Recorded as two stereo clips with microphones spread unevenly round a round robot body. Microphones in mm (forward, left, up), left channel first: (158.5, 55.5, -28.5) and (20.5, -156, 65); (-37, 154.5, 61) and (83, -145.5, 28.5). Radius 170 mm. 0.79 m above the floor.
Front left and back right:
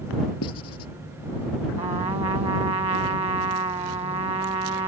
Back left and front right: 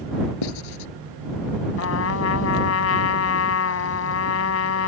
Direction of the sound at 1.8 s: 165° left.